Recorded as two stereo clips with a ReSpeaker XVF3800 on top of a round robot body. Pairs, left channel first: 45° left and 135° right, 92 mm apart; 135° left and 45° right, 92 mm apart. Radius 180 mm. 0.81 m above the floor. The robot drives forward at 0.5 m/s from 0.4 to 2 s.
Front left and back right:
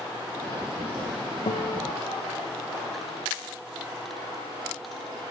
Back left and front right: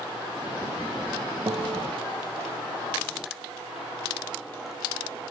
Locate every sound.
1.5 s a guitar: 10° left